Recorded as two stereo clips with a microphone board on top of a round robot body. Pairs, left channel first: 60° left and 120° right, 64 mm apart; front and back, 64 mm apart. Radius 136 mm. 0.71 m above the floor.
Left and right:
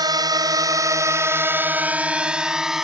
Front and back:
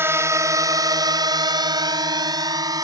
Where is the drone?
125° right; by 2.8 s 155° left.